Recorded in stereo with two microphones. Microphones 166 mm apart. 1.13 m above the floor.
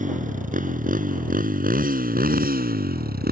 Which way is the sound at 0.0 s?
50° right (ahead or behind).